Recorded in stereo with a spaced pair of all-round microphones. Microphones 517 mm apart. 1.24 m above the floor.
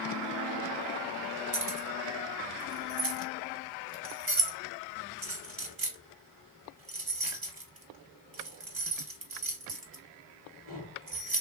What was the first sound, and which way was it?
Keys jangling, 40° right (ahead or behind).